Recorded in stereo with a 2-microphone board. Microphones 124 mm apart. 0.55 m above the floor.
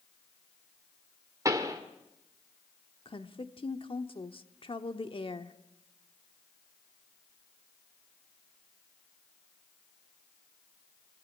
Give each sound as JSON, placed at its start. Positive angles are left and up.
{"t": 1.4, "sound": "a pop", "side_deg": -30, "distance_m": 1.7}
{"t": 3.0, "sound": "a woman speaking", "side_deg": 45, "distance_m": 1.1}